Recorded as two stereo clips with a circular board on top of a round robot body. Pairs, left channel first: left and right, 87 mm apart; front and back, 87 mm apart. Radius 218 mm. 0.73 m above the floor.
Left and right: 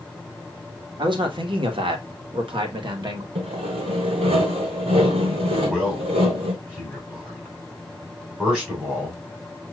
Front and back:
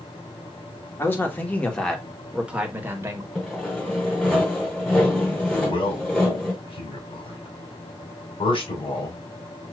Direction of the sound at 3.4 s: 85° right.